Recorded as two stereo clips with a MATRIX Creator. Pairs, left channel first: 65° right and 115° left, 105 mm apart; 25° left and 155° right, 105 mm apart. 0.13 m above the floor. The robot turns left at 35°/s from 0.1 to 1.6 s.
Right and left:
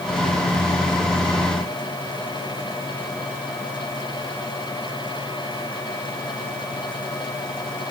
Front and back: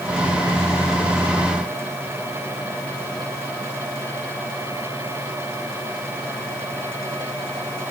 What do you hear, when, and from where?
Only background noise.